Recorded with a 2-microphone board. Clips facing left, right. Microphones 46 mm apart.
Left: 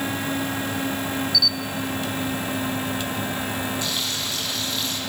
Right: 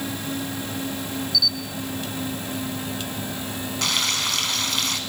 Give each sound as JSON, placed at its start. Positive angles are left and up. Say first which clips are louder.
{"t": 1.3, "sound": "a camera shutter", "louder": "right 1 dB", "side_deg": -5, "distance_m": 0.9}
{"t": 3.8, "sound": "frying", "louder": "right 3 dB", "side_deg": -70, "distance_m": 3.0}